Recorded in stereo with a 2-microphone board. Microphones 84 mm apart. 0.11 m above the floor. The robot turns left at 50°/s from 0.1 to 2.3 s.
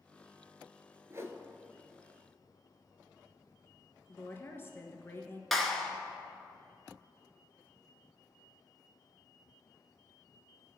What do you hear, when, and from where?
1.1 s a whoosh: 35° right (ahead or behind), 0.9 m; by 1.4 s 25° right (ahead or behind), 0.9 m
4.1 s a woman speaking: 30° left (ahead or behind), 1.2 m
5.5 s a clap: centre (ahead or behind), 1.1 m